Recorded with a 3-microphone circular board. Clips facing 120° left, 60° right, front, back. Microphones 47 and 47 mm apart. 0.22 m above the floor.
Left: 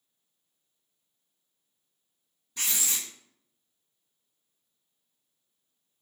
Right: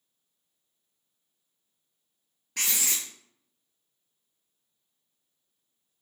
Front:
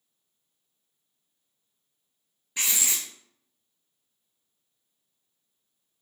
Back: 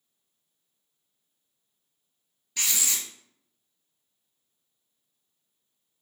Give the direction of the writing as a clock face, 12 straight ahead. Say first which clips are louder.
Right 2 dB, front 1 dB; 2 o'clock.